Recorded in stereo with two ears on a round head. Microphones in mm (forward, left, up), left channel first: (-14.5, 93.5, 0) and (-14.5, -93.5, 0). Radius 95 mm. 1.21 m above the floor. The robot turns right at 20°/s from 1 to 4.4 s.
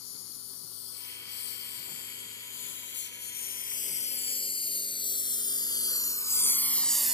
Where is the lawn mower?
80° left; by 7.2 s 5° right (ahead or behind).